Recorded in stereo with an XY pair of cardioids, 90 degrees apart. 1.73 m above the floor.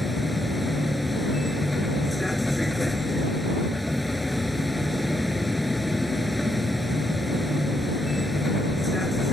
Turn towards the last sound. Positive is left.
turn(degrees=5)